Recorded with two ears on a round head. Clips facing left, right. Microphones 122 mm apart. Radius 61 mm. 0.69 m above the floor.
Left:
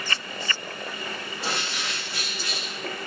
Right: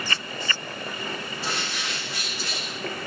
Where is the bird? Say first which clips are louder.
Left 3 dB; centre (ahead or behind), 1.2 m.